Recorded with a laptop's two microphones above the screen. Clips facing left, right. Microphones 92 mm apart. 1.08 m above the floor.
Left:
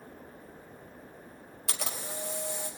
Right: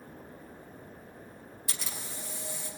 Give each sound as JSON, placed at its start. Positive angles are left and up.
{"t": 1.7, "sound": "a camera shutter", "side_deg": 70, "distance_m": 3.5}